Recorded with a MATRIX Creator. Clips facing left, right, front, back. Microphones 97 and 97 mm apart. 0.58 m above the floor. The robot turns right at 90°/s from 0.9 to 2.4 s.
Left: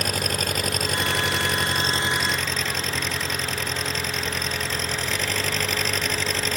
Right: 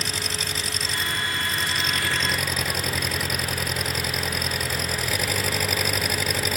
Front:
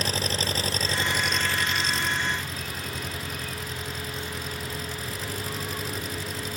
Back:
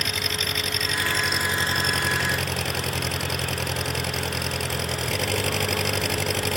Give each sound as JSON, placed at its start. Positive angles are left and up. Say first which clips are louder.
{"t": 0.0, "sound": "an engine running", "louder": "left 5 dB, front 1 dB", "azimuth_deg": 55}